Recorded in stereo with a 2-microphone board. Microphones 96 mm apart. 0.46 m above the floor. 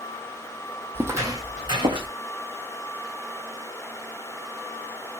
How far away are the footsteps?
About 0.8 m.